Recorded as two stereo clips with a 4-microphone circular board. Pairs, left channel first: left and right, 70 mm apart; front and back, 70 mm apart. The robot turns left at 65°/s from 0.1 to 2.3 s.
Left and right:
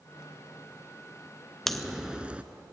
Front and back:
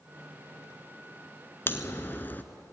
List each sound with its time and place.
1.7 s a crack: 10° left, 1.0 m; by 2.4 s 35° right, 1.0 m